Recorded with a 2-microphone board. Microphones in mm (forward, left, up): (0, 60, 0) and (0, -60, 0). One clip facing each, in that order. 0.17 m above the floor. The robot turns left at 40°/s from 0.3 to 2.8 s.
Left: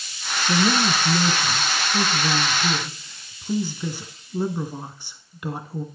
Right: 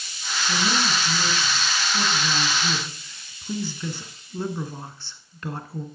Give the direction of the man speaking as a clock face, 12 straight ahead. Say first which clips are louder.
Left 5 dB; 8 o'clock.